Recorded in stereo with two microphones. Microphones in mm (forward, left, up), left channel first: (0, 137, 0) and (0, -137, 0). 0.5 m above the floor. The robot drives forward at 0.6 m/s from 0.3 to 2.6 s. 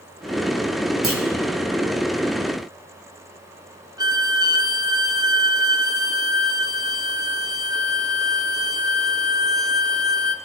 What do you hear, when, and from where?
1.0 s a clunk: 50° right (ahead or behind), 1.4 m; by 1.2 s 55° right (ahead or behind), 1.3 m
4.0 s a violin: 15° right (ahead or behind), 0.5 m